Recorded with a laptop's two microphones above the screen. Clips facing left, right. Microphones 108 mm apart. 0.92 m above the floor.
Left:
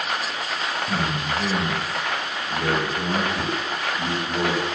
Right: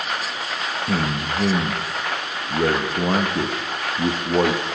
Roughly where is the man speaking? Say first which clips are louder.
Right 4 dB; right.